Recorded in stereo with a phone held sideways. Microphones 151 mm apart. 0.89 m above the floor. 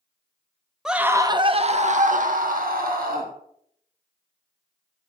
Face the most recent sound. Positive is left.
turn(degrees=-80)